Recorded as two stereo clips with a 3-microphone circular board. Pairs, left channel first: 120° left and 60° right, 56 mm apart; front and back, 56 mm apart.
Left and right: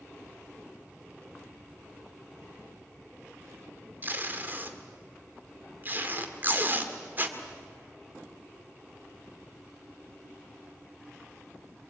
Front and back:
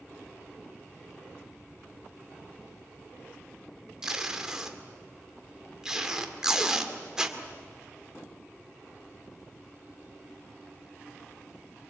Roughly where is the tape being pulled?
Right.